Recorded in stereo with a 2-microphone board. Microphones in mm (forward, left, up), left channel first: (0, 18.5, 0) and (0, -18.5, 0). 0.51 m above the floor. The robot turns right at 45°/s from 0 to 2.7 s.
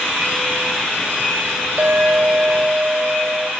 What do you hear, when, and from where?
1.8 s a clink: 90° right, 1.3 m; by 3.5 s 45° right, 1.3 m